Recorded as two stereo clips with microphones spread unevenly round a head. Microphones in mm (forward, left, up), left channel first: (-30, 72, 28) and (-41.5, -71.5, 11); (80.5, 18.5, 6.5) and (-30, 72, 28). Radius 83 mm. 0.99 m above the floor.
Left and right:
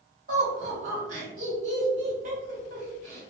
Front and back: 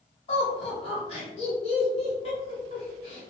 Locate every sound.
0.3 s laughter: 65° right, 1.6 m